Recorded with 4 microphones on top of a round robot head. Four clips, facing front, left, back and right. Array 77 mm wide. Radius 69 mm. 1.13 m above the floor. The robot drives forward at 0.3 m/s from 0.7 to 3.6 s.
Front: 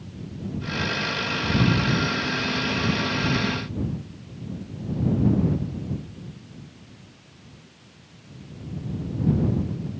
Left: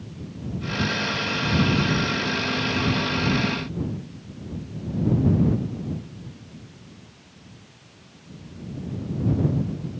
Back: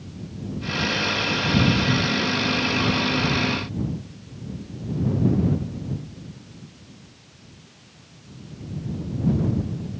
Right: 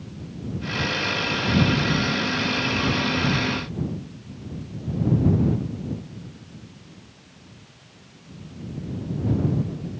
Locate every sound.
Only background noise.